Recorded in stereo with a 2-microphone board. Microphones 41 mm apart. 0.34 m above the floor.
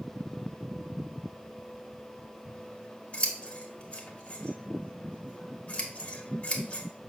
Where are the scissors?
35° left (ahead or behind), 1.1 m.